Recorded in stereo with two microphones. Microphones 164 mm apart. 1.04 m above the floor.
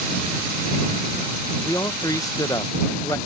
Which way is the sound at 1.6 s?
20° left (ahead or behind).